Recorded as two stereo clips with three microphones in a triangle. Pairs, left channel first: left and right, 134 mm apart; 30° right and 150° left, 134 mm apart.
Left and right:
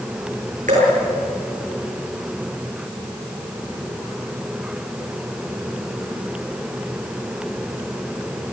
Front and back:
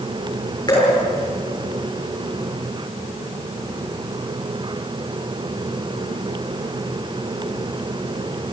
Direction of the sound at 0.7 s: 85° right.